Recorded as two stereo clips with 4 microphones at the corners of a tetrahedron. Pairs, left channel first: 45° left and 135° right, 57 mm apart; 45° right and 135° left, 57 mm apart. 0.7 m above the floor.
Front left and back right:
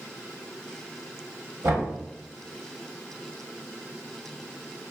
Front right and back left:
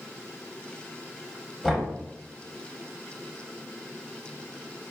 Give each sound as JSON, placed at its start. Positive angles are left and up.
{"t": 1.6, "sound": "knocking", "azimuth_deg": -145, "distance_m": 1.1}